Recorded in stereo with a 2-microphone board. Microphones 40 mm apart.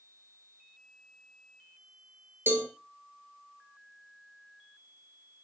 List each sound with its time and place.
2.5 s a cowbell: 60° right (ahead or behind), 1.6 m